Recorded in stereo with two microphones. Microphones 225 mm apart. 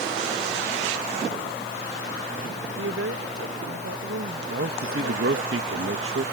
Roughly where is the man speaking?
Right.